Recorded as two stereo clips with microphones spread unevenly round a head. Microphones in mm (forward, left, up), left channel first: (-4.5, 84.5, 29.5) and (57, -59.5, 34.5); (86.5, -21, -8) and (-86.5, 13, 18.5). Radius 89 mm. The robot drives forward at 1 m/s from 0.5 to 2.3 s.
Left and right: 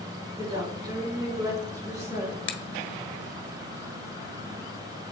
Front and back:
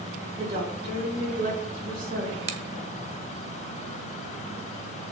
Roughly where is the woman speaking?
Behind right.